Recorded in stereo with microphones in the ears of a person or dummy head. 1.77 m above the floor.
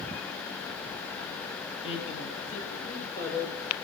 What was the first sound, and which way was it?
A woman speaking, 40° left (ahead or behind).